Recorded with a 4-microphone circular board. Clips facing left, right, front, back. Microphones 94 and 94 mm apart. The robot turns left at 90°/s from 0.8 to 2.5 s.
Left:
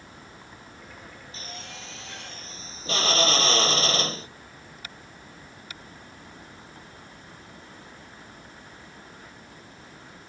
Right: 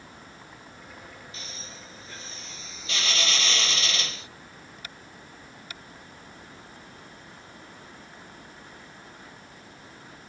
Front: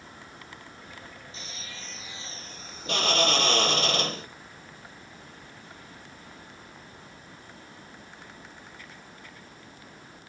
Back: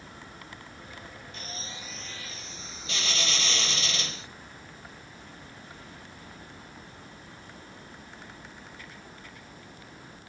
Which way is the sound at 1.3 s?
145° left.